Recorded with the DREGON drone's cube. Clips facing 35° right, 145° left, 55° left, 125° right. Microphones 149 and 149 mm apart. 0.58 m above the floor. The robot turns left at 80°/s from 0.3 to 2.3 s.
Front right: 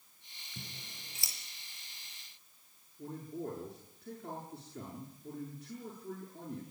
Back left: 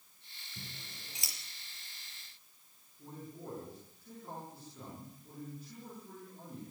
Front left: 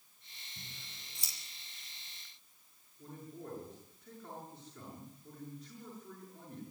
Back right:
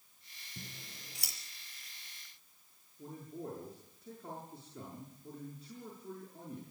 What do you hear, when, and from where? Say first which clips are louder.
0.6 s scissors: front right 1 dB, back right 6 dB; 90° right, 6 m; by 1.3 s 155° right, 6 m
3.0 s a man speaking: front right 7 dB, back right 3 dB; 65° right, 7.5 m